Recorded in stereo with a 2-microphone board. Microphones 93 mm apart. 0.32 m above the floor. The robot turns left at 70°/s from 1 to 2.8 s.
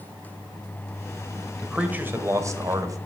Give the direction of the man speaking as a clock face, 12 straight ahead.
12 o'clock.